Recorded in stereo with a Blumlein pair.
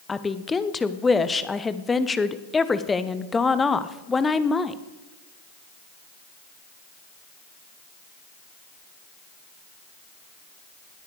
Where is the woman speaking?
10° left, 0.9 m.